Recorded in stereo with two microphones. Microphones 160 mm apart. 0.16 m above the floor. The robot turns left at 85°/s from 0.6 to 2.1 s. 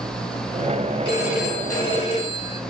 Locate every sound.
1.1 s a phone ringing: 145° right, 2.0 m; by 2.6 s 125° left, 2.0 m